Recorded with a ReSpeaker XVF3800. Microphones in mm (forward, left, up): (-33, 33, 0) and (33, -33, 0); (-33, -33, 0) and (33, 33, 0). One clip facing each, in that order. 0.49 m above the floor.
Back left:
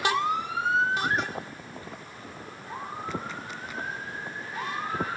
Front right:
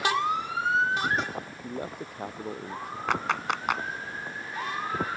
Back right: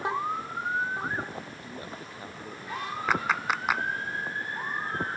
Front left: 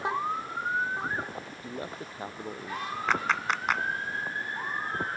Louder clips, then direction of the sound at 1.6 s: Front right 6 dB, front left 3 dB; 20° right.